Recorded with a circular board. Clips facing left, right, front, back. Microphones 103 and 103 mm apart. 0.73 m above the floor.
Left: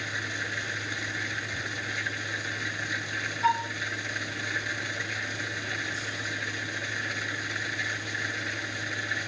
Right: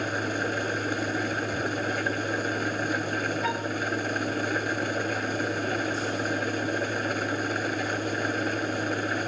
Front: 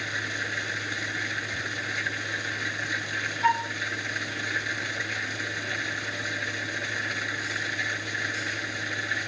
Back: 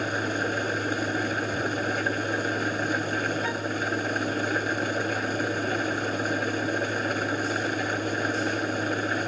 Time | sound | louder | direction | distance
0.0 | an engine running | right 8 dB, back 7 dB | 135° right | ?
3.4 | a flute | left 3 dB, front 5 dB | 30° left | ?